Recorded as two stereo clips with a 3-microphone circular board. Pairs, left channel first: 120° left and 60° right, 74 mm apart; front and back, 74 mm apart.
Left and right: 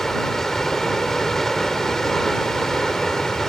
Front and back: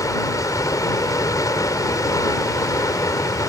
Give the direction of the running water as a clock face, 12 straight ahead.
11 o'clock.